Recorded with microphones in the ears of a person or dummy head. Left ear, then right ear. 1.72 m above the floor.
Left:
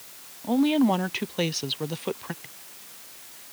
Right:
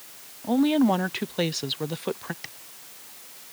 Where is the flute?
No flute in this recording.